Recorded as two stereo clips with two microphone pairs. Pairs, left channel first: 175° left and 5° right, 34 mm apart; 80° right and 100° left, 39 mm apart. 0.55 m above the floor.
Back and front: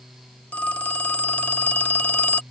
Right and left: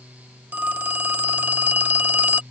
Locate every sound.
0.5 s a phone ringing: 135° left